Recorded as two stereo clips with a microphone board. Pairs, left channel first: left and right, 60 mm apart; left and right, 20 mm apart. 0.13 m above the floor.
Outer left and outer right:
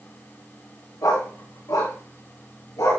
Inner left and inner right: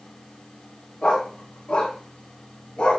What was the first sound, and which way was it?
A dog barking, 85° left.